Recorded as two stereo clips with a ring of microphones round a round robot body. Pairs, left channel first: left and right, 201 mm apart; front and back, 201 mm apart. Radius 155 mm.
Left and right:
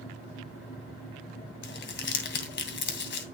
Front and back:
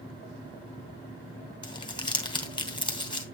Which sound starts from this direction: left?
Crumpling, at 1.6 s.